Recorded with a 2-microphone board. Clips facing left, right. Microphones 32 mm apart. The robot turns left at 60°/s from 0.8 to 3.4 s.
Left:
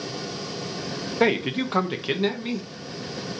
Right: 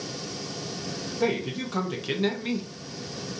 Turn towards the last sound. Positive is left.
turn(degrees=-55)